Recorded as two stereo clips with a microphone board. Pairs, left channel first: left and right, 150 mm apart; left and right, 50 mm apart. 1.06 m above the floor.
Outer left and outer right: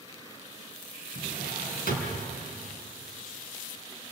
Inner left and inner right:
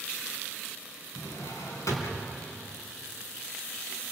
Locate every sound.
1.1 s a drawer: 80° left, 4.5 m